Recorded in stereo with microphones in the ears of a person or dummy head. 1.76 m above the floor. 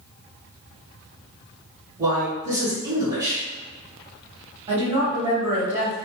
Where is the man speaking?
25° right (ahead or behind), 1.6 m.